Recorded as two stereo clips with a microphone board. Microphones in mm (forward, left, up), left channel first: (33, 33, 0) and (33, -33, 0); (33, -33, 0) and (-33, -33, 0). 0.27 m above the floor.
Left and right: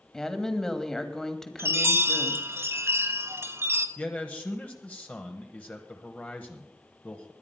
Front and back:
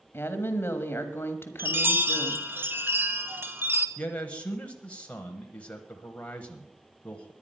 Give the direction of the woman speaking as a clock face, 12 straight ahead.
12 o'clock.